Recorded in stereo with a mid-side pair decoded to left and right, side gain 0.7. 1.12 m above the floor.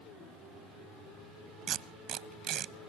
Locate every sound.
1.7 s tape being pulled: 50° right, 0.9 m